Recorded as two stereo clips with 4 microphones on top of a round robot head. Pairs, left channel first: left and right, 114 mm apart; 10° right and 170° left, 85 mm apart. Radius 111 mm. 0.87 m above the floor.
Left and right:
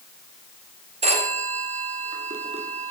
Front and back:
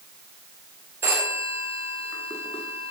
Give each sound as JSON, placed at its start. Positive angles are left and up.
{"t": 1.0, "sound": "a phone ringing", "azimuth_deg": -120, "distance_m": 1.5}